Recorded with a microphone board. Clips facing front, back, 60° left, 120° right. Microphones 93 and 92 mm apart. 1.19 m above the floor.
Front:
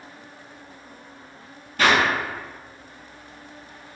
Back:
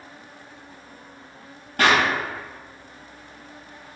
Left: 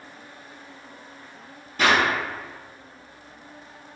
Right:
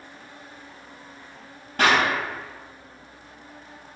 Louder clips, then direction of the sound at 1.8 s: Even, even; 145° right.